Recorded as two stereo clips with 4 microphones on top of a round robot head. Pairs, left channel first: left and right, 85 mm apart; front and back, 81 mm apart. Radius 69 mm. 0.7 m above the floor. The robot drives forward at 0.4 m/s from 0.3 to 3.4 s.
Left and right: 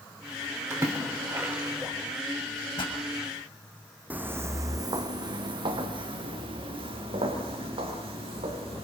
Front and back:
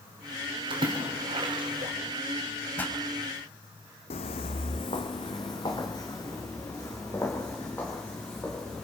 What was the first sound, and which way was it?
A splash, 155° right.